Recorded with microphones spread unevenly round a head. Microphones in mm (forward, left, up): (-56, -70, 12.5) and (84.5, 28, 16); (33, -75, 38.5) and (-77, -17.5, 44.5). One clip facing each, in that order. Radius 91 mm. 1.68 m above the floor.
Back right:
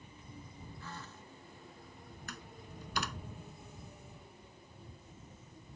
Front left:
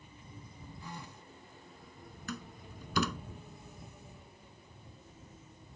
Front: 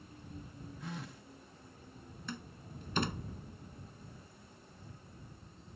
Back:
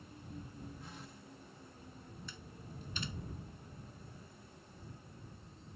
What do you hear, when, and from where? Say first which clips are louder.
0.8 s a phone buzzing: front left 3 dB, front 6 dB; 40° right
2.3 s a door slam: front left 9 dB, front 6 dB; 30° left